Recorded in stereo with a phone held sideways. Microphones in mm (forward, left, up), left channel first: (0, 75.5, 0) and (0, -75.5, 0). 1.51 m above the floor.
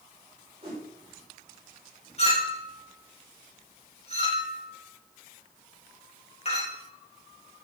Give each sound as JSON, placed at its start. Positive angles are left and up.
{"t": 0.6, "sound": "a whoosh", "side_deg": -35, "distance_m": 5.5}
{"t": 2.2, "sound": "a clink", "side_deg": 40, "distance_m": 4.0}